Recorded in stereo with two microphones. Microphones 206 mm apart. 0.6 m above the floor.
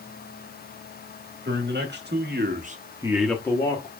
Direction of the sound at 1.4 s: 60° right (ahead or behind).